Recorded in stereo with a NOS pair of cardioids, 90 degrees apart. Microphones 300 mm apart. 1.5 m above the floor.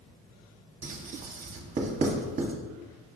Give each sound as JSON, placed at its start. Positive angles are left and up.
{"t": 0.8, "sound": "writing", "azimuth_deg": -25, "distance_m": 0.9}